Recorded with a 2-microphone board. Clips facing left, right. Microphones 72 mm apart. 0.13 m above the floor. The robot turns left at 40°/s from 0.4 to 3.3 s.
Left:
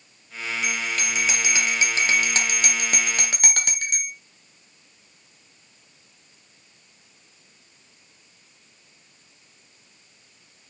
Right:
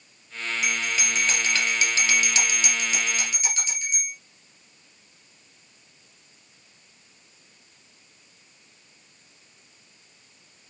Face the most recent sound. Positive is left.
turn(degrees=90)